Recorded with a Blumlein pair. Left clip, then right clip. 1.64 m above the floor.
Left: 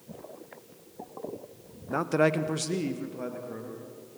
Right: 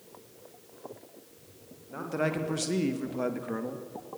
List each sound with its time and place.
1.9 s a man speaking: 35° left, 1.6 m; by 3.8 s 25° right, 3 m